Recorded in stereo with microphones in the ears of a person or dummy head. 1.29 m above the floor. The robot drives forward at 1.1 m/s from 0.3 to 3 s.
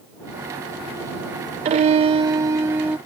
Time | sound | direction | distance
1.6 | a violin | 30° right (ahead or behind) | ?